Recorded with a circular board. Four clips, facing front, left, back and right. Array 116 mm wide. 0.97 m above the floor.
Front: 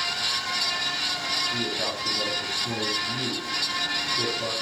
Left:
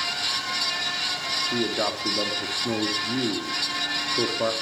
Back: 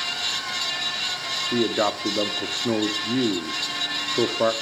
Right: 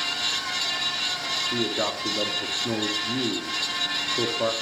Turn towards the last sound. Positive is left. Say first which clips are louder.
# left 1 dB, back 13 dB
turn(degrees=175)